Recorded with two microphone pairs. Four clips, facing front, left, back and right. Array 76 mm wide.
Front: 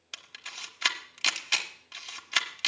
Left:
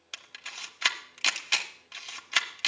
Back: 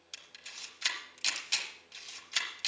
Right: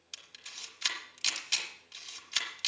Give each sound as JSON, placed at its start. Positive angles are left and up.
{"t": 0.1, "sound": "a camera shutter", "azimuth_deg": 50, "distance_m": 1.0}